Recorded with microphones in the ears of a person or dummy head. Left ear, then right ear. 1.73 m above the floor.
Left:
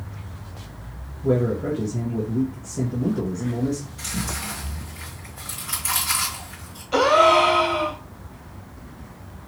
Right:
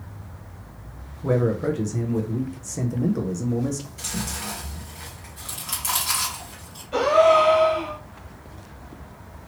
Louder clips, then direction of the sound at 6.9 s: Left 1 dB; 30° left (ahead or behind).